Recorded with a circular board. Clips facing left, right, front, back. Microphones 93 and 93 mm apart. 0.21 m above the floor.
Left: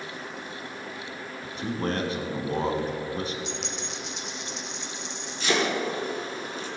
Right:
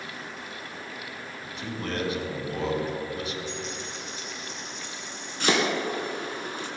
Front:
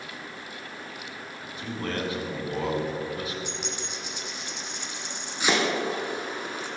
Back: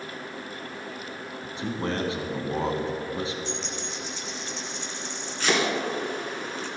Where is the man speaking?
125° left, 1.9 m.